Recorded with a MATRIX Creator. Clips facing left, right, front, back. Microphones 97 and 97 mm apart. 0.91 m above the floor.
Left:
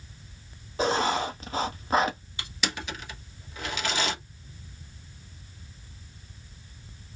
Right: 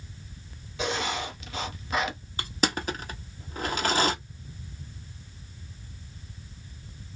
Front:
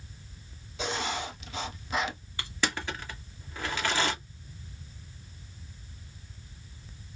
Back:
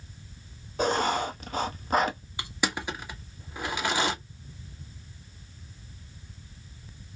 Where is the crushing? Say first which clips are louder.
Right 7 dB, back 2 dB; 115° right, 0.9 m.